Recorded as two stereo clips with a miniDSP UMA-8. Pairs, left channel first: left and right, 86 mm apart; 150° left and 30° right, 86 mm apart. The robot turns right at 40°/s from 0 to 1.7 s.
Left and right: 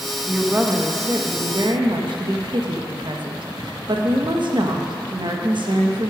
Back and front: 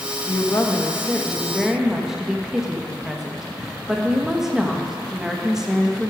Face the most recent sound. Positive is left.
turn(degrees=-115)